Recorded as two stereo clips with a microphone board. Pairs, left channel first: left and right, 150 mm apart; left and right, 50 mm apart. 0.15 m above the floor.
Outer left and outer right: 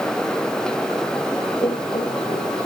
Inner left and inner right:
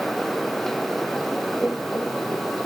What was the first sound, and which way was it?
Laughter, 25° left (ahead or behind).